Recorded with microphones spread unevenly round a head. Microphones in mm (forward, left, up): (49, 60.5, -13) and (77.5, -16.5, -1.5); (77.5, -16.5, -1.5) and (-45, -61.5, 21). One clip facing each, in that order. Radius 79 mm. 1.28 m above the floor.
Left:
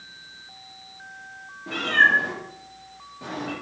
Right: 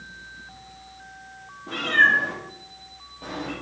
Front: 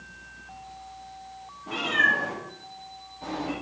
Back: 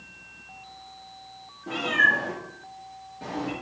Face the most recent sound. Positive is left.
turn(degrees=165)